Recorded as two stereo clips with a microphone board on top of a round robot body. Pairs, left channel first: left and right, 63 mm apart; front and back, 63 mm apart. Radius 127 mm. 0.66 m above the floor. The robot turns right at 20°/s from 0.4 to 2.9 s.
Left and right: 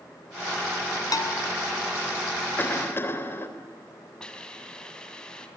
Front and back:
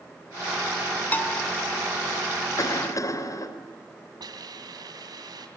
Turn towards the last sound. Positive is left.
turn(degrees=165)